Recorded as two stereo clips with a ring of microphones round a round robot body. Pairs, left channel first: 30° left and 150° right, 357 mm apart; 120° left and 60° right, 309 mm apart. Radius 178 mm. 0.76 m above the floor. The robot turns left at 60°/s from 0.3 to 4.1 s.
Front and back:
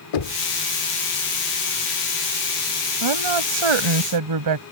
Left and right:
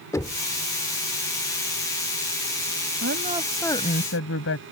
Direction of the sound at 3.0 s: 115° right.